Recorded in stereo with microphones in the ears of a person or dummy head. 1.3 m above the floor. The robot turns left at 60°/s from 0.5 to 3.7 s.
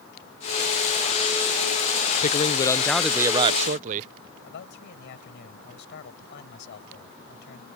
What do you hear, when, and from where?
2.2 s a man speaking: 50° left; by 4.1 s 40° right
4.4 s a man speaking: 60° left (ahead or behind)